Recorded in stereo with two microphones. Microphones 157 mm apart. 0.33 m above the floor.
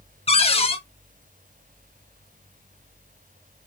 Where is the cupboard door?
40° left (ahead or behind), 0.6 m.